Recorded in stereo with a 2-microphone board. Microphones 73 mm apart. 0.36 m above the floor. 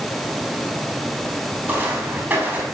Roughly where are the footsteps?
Right.